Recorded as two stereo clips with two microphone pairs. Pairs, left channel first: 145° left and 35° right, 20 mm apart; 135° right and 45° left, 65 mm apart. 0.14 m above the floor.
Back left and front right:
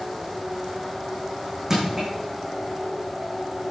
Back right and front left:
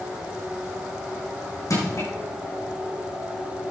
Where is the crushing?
105° right, 7 m.